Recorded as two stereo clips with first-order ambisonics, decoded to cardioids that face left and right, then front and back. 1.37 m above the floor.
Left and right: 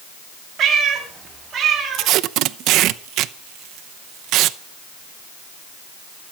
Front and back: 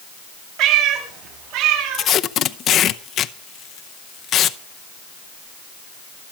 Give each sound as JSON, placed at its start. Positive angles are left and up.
{"t": 0.6, "sound": "a cat meowing", "azimuth_deg": -150, "distance_m": 3.0}
{"t": 1.9, "sound": "tape being pulled", "azimuth_deg": -55, "distance_m": 0.7}